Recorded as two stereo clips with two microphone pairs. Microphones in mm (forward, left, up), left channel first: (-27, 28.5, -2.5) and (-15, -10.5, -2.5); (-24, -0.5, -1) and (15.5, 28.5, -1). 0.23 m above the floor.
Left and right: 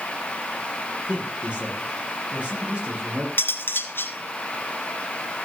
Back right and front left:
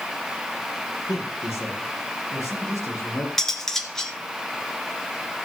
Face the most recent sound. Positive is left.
turn(degrees=135)